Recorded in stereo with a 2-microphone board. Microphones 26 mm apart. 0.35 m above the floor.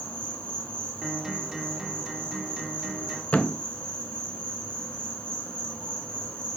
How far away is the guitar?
About 1.6 m.